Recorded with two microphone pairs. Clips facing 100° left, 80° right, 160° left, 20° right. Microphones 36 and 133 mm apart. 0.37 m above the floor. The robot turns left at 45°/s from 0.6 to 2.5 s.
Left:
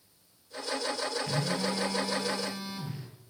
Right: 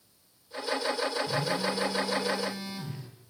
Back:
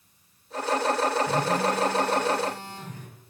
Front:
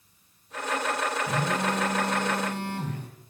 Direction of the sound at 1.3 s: 65° left.